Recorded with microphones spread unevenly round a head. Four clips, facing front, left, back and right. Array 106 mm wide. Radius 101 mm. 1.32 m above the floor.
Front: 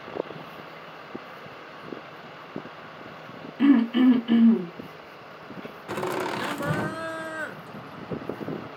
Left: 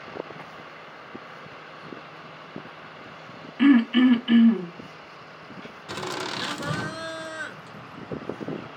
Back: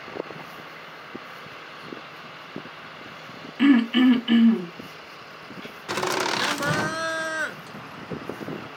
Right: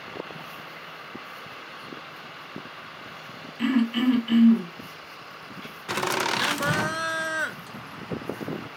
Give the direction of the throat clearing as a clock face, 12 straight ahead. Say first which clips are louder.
Left 6 dB, back 1 dB; 6 o'clock.